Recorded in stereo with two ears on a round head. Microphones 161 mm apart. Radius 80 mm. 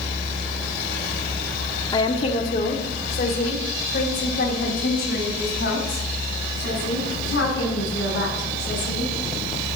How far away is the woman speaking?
About 1.0 m.